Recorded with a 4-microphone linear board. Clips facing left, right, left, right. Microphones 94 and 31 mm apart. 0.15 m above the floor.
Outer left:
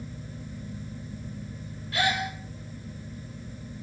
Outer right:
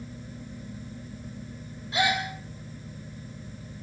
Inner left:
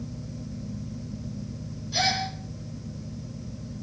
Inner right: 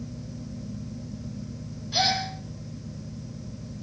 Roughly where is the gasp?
Right.